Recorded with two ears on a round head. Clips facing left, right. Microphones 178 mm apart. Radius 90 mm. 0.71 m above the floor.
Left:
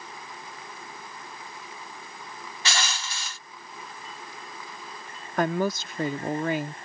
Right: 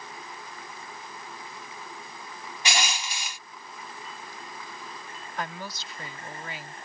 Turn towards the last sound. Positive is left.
turn(degrees=40)  # may be behind; listen again after turning